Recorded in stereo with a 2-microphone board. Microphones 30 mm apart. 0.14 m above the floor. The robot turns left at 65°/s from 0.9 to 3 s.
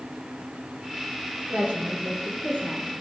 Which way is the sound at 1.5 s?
30° right.